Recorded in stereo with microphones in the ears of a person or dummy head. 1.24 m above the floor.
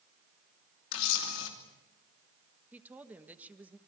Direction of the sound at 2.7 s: 15° right (ahead or behind).